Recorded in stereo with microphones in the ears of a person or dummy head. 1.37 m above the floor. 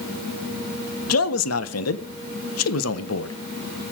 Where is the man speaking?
75° left (ahead or behind), 1.1 m.